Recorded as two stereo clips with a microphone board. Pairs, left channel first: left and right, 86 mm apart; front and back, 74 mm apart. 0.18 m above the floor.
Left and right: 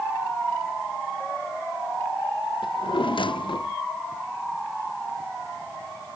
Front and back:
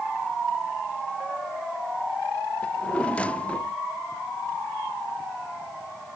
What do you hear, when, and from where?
2.6 s a drawer: 75° left